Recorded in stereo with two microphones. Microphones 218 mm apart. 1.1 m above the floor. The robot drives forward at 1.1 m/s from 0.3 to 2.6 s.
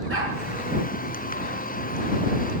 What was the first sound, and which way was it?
A dog barking, 75° right (ahead or behind).